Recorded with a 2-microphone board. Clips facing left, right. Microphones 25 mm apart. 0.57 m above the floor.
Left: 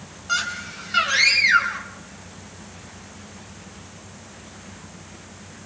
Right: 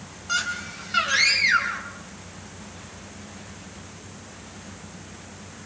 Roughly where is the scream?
Centre.